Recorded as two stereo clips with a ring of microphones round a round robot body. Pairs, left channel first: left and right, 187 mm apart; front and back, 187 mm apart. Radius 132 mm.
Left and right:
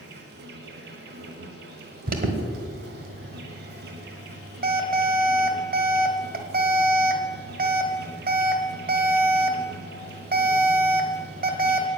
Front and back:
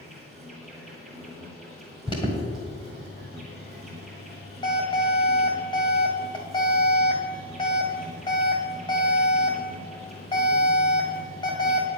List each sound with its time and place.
0.0 s an insect: 90° right, 1.7 m
2.1 s an alarm: 65° right, 1.4 m